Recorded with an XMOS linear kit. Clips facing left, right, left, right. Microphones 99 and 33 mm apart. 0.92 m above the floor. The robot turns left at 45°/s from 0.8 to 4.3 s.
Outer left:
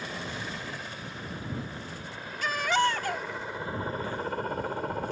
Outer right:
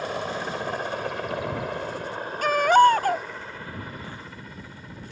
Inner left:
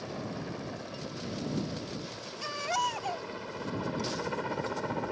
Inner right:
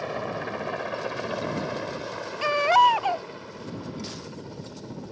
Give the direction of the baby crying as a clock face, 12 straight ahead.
3 o'clock.